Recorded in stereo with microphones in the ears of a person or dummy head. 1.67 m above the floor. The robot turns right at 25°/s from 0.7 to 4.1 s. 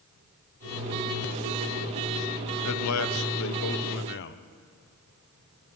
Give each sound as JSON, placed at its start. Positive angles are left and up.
{"t": 2.6, "sound": "a man speaking", "azimuth_deg": 90, "distance_m": 1.1}